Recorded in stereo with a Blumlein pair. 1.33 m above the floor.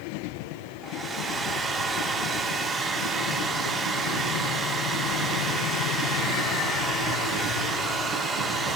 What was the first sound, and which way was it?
A hair dryer, 15° right.